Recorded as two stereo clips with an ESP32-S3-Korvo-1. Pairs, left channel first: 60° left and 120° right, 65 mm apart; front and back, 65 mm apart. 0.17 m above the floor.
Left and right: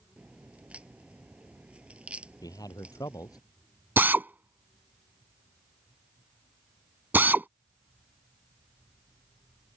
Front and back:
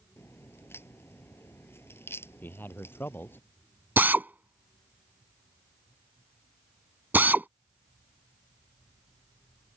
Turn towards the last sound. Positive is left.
turn(degrees=-150)